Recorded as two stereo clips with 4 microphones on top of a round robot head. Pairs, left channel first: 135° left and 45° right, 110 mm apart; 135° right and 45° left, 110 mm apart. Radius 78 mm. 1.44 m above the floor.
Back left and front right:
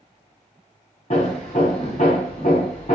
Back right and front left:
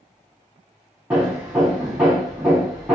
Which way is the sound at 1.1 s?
120° left.